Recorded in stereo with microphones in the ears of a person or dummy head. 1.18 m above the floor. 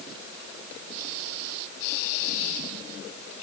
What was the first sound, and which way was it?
Only background noise.